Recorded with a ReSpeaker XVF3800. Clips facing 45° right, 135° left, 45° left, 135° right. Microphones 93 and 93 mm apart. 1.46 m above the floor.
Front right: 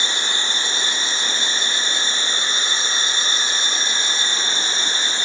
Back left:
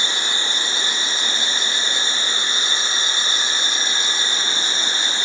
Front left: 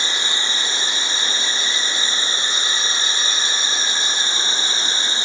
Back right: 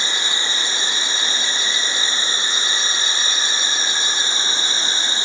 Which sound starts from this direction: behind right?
An insect, at 0.0 s.